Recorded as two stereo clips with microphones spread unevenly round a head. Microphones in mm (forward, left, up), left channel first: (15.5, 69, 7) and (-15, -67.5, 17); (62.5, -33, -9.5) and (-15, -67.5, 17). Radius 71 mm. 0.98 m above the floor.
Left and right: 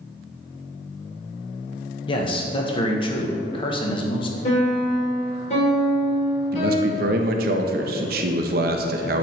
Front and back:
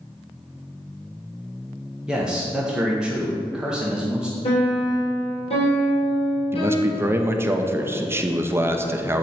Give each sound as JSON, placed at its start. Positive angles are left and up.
{"t": 2.1, "sound": "a man speaking", "azimuth_deg": 105, "distance_m": 1.1}
{"t": 4.4, "sound": "a piano", "azimuth_deg": 30, "distance_m": 3.0}
{"t": 6.5, "sound": "a man speaking", "azimuth_deg": -85, "distance_m": 0.7}